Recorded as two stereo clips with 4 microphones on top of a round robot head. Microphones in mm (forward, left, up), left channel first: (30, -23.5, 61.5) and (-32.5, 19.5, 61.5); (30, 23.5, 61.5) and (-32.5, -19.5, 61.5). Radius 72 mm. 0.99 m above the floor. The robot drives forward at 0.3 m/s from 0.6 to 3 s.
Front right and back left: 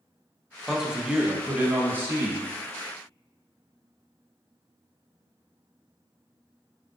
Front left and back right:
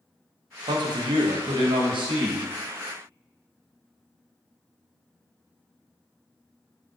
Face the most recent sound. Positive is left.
turn(degrees=-160)